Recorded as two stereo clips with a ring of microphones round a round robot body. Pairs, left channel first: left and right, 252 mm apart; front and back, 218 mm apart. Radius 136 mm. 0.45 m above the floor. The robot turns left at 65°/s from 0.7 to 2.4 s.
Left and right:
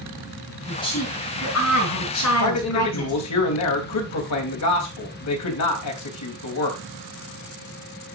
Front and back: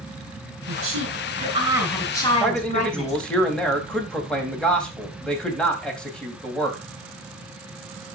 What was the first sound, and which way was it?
A woman speaking, 170° left.